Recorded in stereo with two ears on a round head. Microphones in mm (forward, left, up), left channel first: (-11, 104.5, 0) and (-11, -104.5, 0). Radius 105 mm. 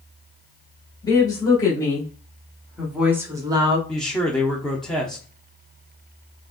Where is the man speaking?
Centre (ahead or behind), 0.8 m.